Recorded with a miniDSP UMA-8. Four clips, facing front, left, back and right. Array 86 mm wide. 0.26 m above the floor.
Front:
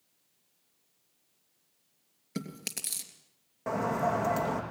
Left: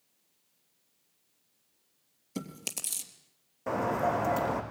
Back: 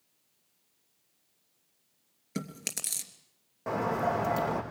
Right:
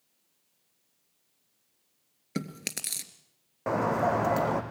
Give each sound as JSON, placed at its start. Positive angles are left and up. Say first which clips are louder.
{"t": 2.4, "sound": "chewing", "louder": "right 4 dB, back 1 dB", "azimuth_deg": -95, "distance_m": 3.0}
{"t": 3.7, "sound": "a bird", "louder": "right 3 dB, even", "azimuth_deg": -85, "distance_m": 5.5}